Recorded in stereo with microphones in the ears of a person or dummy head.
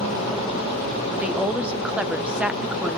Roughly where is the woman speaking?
Centre.